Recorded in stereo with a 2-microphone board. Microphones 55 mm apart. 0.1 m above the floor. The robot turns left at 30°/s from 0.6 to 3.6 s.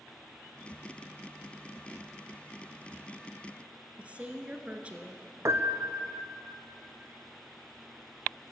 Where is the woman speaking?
25° right (ahead or behind), 1.2 m.